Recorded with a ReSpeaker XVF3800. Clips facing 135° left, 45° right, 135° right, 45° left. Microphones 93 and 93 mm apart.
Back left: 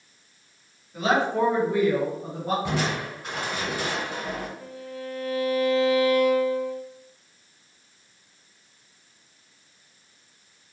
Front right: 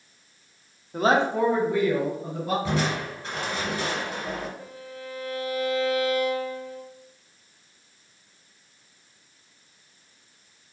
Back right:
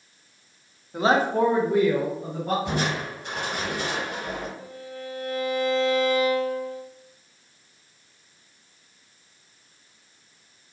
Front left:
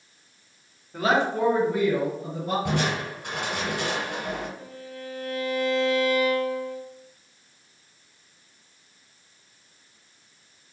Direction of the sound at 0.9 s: 60° right.